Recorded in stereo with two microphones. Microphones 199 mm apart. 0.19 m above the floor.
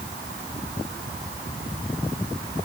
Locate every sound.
Only background noise.